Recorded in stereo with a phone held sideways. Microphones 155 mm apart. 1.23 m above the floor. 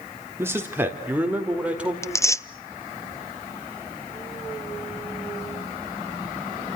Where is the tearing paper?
20° left (ahead or behind), 0.6 m.